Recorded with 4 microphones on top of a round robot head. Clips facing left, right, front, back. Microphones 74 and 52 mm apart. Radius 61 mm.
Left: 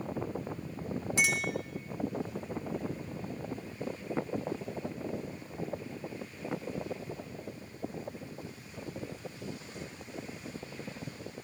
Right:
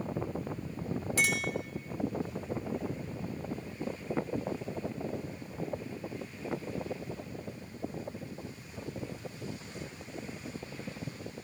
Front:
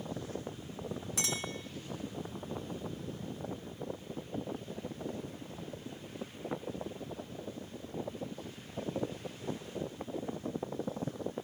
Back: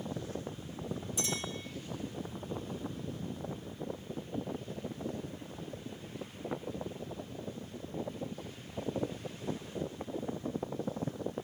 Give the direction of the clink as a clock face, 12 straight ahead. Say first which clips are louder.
Even, front 1 dB; 11 o'clock.